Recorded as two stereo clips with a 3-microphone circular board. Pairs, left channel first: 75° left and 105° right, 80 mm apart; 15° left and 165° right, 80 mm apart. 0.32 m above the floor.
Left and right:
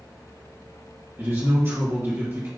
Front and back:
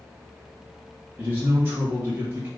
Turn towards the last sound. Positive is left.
turn(degrees=-125)